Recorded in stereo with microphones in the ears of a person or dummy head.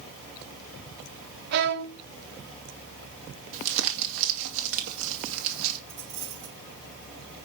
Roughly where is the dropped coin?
Right.